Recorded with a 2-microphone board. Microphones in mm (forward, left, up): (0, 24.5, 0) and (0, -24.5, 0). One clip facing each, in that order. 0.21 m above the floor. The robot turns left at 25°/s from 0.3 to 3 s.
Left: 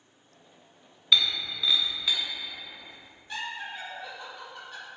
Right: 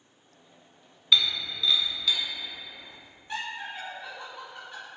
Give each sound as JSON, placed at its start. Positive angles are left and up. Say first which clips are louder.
{"t": 1.1, "sound": "breaking glass", "louder": "even", "side_deg": 0, "distance_m": 0.8}
{"t": 3.3, "sound": "laughter", "louder": "right 1 dB", "side_deg": -30, "distance_m": 1.9}